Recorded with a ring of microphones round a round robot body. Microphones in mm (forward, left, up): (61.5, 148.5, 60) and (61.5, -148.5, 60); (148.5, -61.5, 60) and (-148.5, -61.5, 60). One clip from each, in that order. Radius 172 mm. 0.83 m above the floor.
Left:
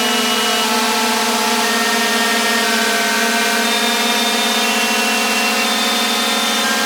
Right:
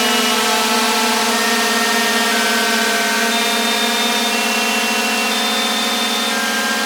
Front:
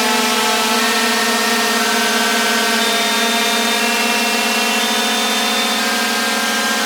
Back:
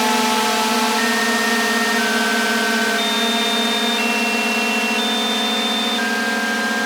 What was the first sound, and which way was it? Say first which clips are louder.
A drone: even, front 2 dB; 15° right.